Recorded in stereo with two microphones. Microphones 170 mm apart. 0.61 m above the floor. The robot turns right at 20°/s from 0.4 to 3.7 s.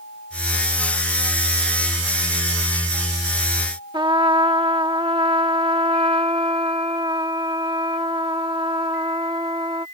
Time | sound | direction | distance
3.9 | a trumpet | 25° right (ahead or behind) | ?